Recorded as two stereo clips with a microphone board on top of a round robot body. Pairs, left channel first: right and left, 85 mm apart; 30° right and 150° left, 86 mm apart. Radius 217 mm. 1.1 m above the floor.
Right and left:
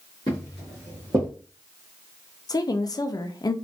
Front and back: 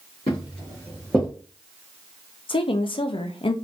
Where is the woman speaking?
45° right, 0.6 m.